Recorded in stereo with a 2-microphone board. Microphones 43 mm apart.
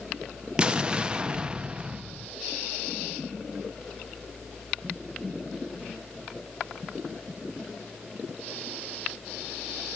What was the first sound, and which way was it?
An explosion, 25° right (ahead or behind).